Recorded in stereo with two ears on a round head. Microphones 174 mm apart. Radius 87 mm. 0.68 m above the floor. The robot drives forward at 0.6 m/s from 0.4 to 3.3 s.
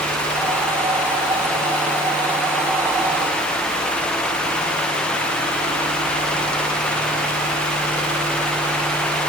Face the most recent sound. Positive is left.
No sound to turn to.